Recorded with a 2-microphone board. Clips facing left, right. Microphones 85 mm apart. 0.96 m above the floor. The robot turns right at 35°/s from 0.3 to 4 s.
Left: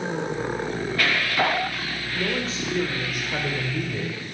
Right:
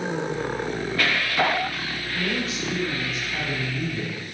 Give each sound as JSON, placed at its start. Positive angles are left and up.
{"t": 2.1, "sound": "a man speaking", "azimuth_deg": 25, "distance_m": 3.0}